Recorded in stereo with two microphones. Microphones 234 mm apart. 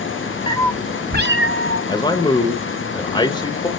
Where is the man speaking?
20° left (ahead or behind), 0.8 m.